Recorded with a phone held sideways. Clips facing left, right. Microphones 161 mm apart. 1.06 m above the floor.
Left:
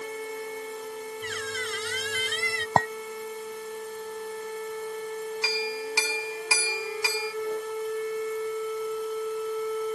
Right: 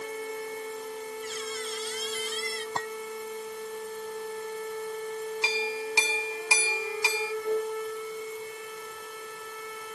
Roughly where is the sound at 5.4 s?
Right.